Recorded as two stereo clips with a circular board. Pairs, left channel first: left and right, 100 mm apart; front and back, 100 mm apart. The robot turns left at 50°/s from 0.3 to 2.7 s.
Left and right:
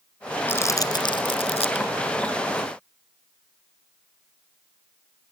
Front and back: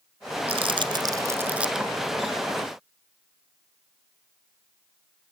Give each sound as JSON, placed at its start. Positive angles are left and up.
{"t": 0.5, "sound": "crumpling", "azimuth_deg": 160, "distance_m": 1.6}